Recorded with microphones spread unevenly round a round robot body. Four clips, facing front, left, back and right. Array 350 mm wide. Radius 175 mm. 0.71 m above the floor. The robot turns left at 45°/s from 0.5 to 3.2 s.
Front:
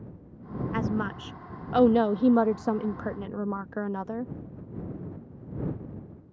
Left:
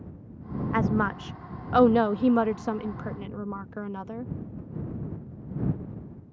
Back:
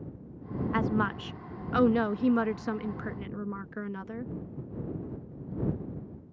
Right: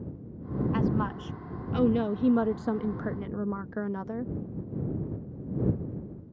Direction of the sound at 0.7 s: 95° left.